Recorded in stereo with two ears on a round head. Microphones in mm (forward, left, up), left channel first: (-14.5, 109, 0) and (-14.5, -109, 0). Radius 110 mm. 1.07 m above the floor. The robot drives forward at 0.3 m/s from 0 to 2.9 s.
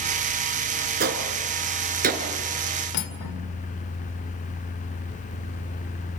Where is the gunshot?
40° right (ahead or behind), 3 m.